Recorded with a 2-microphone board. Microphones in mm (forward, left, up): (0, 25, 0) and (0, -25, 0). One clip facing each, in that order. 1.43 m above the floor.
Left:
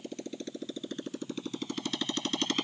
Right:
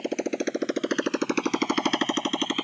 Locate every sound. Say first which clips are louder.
0.0 s a motorcycle: right 12 dB; 70° right (ahead or behind); by 2.6 s 15° right (ahead or behind)